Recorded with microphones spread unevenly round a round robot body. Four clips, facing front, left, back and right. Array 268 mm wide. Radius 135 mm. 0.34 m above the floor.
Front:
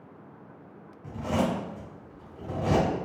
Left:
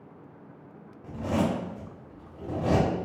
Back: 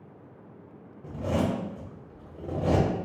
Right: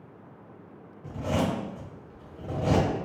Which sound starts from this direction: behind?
A zipper, at 1.0 s.